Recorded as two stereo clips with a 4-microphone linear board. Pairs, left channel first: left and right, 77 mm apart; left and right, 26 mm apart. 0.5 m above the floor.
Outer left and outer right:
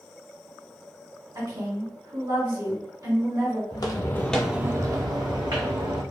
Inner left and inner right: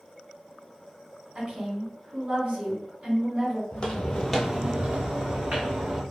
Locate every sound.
1.4 s a woman speaking: 55° right (ahead or behind), 1.8 m
3.7 s footsteps: 55° left (ahead or behind), 0.9 m; by 6.0 s 75° right (ahead or behind), 1.7 m